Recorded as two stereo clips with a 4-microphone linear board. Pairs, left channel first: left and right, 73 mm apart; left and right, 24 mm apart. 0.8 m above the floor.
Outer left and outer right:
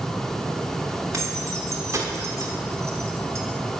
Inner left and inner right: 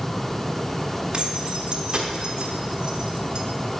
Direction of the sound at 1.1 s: 45° right (ahead or behind).